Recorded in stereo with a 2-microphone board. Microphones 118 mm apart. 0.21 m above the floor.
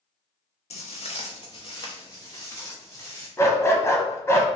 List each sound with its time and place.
0.7 s footsteps: 70° left (ahead or behind), 0.6 m; by 3.3 s 25° left (ahead or behind), 1.8 m
3.4 s a dog barking: 25° left (ahead or behind), 0.6 m